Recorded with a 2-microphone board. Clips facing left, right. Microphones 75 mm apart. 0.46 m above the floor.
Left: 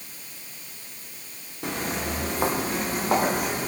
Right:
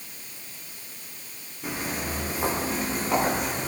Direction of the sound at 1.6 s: 75° left (ahead or behind).